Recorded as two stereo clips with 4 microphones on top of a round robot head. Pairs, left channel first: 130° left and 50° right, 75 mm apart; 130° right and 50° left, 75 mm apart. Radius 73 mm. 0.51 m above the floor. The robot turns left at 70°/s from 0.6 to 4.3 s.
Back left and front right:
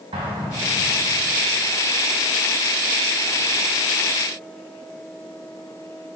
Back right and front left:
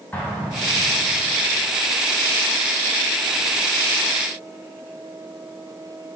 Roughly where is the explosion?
Ahead right.